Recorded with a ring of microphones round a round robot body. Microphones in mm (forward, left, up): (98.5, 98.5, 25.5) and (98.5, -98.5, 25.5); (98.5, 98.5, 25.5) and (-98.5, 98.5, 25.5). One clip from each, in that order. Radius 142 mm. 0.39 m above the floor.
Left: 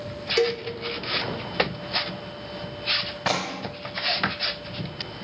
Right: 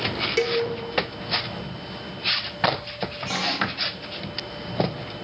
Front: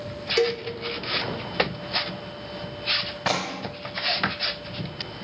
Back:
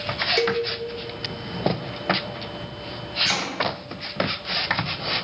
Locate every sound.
0.4 s a cowbell: 30° left, 0.7 m
3.2 s chopping: 145° left, 2 m